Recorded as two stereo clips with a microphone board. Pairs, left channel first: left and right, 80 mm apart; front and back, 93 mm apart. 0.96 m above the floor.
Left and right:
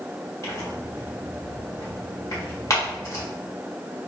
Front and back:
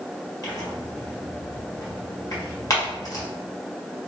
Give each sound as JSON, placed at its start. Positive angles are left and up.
{"t": 0.4, "sound": "tearing paper", "azimuth_deg": 45, "distance_m": 1.3}